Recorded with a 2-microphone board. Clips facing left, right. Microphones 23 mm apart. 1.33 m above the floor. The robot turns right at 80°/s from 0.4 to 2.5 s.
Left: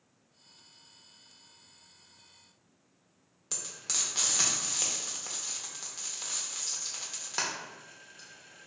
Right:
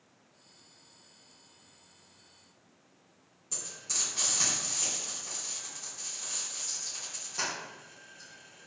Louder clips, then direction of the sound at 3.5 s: Left 1 dB; 50° left (ahead or behind).